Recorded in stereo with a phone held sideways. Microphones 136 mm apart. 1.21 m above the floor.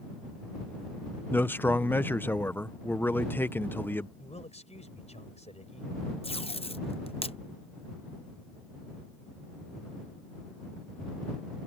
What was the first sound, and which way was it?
A man speaking, 15° left (ahead or behind).